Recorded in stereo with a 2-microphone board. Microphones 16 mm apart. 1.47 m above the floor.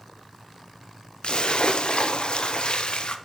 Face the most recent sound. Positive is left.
turn(degrees=65)  # may be behind; listen again after turning